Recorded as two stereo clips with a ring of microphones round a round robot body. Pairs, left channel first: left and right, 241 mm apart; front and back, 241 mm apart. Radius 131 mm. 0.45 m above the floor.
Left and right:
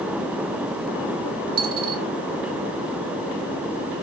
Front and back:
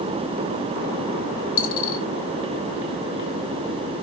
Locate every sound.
1.6 s a dropped coin: 20° right, 0.8 m